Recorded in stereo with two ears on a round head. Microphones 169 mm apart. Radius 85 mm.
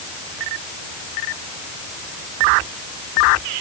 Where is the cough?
No cough in this recording.